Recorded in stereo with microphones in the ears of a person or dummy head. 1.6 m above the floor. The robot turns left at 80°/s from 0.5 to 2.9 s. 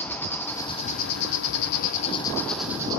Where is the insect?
170° left, 0.8 m; by 3.0 s 20° right, 0.8 m.